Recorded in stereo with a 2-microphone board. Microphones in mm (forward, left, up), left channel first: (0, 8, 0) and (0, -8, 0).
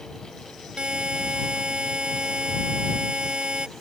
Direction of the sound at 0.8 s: 75° right (ahead or behind).